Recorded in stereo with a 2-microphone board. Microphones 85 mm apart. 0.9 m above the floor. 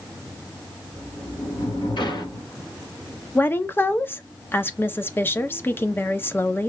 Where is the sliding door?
65° left (ahead or behind), 1.9 m.